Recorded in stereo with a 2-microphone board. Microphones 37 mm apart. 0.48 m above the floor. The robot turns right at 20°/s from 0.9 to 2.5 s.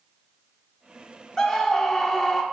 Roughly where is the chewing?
I don't hear chewing.